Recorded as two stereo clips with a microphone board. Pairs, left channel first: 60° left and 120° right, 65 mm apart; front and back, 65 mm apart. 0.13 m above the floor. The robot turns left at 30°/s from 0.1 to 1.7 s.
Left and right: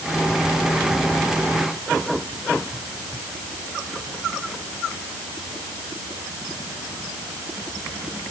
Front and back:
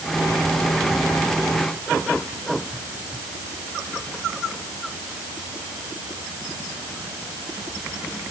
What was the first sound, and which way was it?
Only background noise.